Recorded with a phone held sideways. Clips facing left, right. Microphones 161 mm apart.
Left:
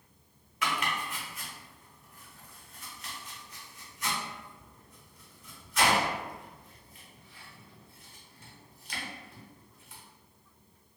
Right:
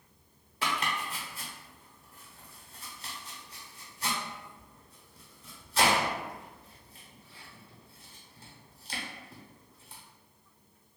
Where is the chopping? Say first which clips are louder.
Even; 30° right (ahead or behind), 0.8 m.